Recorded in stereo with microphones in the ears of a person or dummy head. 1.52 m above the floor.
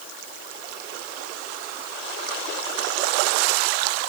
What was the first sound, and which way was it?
Only background noise.